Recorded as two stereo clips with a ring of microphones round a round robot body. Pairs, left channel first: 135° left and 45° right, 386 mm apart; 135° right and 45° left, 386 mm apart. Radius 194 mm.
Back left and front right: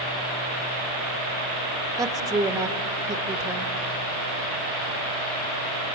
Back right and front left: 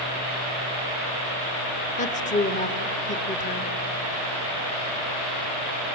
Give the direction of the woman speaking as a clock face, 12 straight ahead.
4 o'clock.